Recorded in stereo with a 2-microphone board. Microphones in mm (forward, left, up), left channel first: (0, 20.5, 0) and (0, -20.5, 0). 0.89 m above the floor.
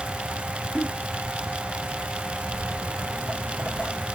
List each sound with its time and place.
0.8 s a giggle: 65° left (ahead or behind), 1.5 m
2.5 s footsteps: 65° left (ahead or behind), 2.5 m; by 4.0 s 35° left (ahead or behind), 1.3 m